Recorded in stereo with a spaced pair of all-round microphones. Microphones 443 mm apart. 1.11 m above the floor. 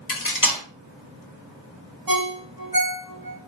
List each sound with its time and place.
0.1 s cutlery clinking: 45° left (ahead or behind), 0.9 m
2.1 s a ringtone: 50° right (ahead or behind), 0.8 m